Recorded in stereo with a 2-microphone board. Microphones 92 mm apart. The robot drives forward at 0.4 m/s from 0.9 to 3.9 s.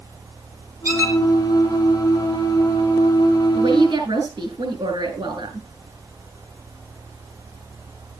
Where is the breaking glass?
No breaking glass in this recording.